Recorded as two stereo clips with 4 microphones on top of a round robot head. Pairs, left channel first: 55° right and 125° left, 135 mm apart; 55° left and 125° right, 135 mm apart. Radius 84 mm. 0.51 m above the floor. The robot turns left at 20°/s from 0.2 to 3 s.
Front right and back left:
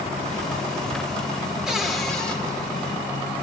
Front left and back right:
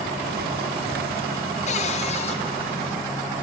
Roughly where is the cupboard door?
Ahead left.